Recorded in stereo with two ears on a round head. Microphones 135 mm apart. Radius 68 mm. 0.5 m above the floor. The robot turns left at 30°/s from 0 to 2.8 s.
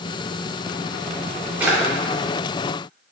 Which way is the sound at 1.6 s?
10° right (ahead or behind).